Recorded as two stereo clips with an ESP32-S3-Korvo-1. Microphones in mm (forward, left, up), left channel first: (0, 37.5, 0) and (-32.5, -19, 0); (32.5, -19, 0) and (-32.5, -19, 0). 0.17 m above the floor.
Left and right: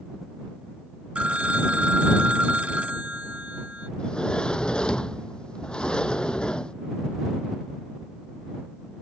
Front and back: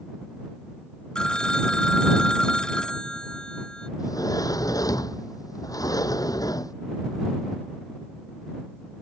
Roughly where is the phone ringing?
Ahead right.